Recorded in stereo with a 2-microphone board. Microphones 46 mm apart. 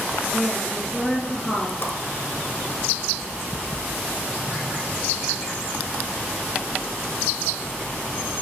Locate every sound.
0.3 s a woman speaking: 10° left (ahead or behind), 2 m
1.8 s a whoosh: 50° left (ahead or behind), 1.1 m